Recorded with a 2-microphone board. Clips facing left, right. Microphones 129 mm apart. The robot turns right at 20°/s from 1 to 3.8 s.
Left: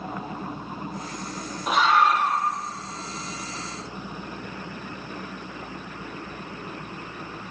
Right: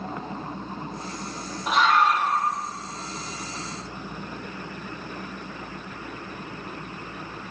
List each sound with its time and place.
1.7 s a scream: centre (ahead or behind), 6.5 m; by 2.4 s 15° left (ahead or behind), 6.5 m